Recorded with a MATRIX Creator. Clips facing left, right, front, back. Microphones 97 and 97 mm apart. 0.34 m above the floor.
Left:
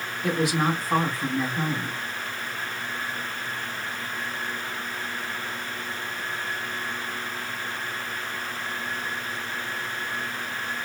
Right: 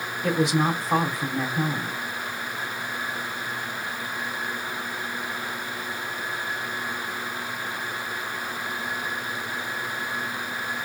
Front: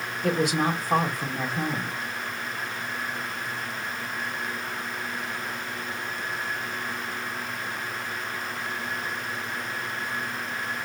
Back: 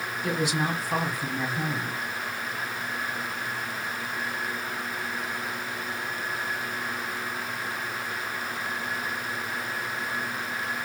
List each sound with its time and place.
0.2 s a woman speaking: 20° right, 2 m